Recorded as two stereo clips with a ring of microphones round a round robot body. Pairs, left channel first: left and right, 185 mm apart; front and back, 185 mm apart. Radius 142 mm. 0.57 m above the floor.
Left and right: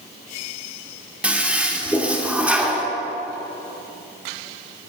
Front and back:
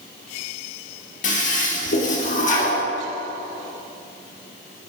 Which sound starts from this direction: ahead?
A toilet flushing, at 1.2 s.